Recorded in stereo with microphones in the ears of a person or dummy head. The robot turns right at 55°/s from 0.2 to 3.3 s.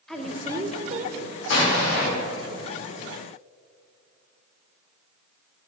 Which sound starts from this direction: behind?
A woman speaking, at 0.1 s.